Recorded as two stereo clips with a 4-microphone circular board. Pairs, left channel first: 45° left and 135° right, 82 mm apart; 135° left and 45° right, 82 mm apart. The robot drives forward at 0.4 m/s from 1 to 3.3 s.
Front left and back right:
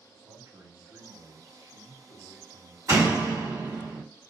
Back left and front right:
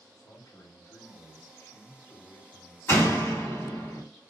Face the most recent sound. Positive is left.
turn(degrees=-175)